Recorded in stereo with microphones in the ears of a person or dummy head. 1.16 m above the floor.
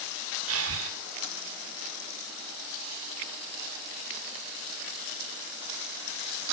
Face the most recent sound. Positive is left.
turn(degrees=-80)